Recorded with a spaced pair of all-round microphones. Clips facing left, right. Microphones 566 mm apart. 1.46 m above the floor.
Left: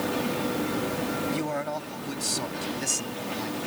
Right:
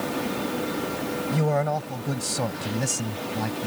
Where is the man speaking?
70° right (ahead or behind); by 3.7 s 75° right (ahead or behind).